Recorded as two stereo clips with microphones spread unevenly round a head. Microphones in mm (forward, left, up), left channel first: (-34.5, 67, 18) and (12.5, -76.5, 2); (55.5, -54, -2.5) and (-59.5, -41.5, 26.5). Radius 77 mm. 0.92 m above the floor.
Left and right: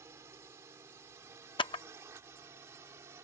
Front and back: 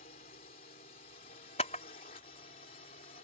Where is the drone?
Straight ahead.